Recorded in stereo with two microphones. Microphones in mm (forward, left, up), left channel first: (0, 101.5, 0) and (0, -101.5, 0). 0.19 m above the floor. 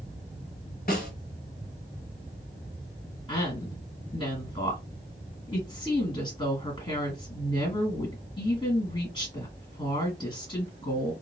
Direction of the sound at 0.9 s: 50° left (ahead or behind).